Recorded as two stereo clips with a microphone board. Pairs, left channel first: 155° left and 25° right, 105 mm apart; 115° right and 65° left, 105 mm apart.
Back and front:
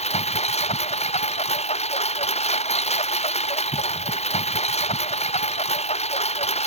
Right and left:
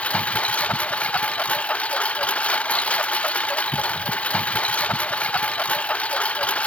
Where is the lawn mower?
170° left.